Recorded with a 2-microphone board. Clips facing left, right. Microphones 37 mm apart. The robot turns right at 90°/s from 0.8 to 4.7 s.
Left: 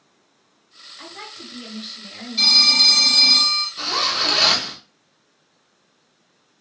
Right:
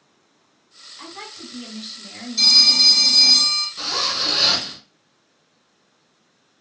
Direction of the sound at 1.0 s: 25° left (ahead or behind).